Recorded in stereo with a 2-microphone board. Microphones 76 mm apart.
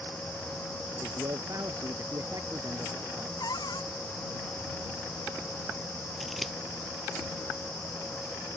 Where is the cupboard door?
60° left (ahead or behind).